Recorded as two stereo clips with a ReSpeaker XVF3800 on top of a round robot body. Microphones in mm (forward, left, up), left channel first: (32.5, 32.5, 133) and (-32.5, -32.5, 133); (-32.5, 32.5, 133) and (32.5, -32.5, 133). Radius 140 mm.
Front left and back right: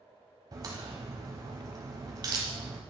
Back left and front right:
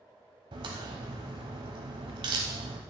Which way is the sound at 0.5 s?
85° right.